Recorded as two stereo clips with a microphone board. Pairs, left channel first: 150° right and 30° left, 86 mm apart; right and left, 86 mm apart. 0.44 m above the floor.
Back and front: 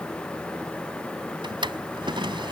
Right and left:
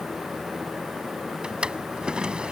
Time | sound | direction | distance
1.4 | a drawer | 10° left | ?